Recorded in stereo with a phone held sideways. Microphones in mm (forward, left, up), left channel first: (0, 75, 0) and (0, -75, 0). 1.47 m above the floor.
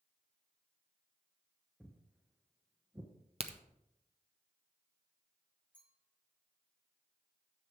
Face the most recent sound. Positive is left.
turn(degrees=-10)  # may be behind; listen again after turning